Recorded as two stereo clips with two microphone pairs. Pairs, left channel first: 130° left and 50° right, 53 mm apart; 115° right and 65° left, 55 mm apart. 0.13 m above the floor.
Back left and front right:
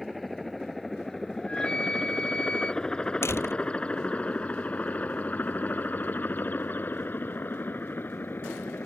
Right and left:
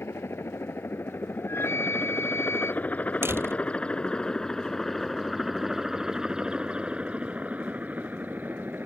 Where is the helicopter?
135° right; by 8.9 s 100° left.